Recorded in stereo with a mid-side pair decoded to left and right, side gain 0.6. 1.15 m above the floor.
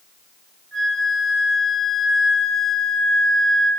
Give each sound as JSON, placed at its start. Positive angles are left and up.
{"t": 0.7, "sound": "a flute", "azimuth_deg": -10, "distance_m": 5.0}